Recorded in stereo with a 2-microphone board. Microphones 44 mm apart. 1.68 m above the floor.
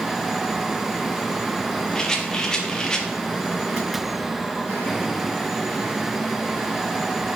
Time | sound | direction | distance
1.9 | a rattle | 15° left (ahead or behind) | 0.9 m